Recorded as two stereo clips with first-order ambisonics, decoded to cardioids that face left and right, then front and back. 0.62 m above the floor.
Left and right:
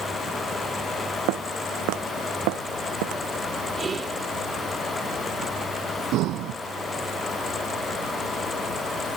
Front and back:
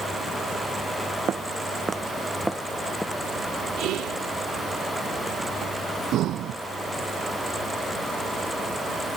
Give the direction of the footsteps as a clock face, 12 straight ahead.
4 o'clock.